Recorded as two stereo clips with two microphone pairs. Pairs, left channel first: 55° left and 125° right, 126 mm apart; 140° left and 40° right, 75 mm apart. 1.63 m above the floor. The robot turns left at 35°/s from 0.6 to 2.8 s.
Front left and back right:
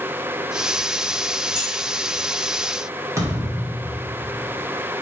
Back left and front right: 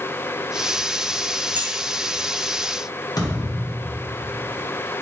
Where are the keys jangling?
105° right, 1.7 m; by 1.7 s 110° right, 1.7 m.